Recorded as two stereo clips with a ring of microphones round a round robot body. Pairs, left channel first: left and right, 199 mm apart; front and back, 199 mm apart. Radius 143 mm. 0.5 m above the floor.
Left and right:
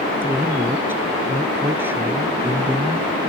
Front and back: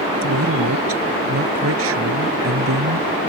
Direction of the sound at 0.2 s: 175° right.